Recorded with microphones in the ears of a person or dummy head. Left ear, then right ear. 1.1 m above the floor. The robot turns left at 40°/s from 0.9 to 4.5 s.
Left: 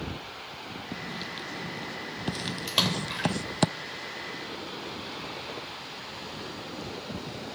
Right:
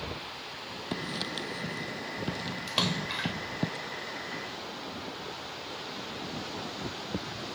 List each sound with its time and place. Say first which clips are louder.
0.9 s writing: right 3 dB; 35° right (ahead or behind), 0.5 m; by 3.7 s 55° left (ahead or behind), 0.5 m
2.7 s a splash: left 3 dB; 10° left (ahead or behind), 1.6 m; by 3.3 s 15° right (ahead or behind), 1.6 m